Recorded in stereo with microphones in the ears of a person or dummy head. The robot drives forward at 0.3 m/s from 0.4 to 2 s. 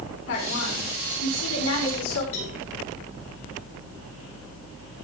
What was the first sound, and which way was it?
A woman speaking, 65° left (ahead or behind).